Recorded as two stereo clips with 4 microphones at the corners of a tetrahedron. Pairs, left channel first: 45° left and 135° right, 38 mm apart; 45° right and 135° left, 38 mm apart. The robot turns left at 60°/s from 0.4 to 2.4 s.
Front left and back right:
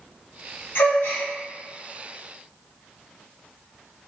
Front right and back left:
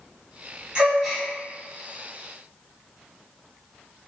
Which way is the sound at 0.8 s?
70° left.